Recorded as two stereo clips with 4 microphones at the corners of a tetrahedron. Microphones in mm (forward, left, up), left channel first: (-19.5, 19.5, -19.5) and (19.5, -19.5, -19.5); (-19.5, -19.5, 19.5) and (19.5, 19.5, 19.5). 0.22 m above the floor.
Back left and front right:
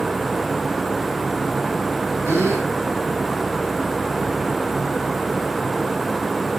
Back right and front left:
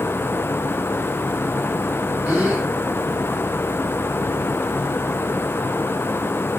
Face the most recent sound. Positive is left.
turn(degrees=-10)